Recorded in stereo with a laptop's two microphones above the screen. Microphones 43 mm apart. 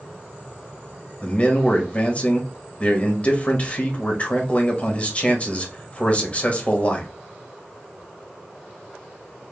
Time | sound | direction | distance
1.2 | a man speaking | 30° left (ahead or behind) | 1.5 m